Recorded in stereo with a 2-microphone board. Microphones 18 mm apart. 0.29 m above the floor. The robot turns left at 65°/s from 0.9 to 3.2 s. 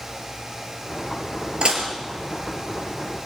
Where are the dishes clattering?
55° right (ahead or behind), 3.5 m; by 1.9 s 40° right (ahead or behind), 3.5 m.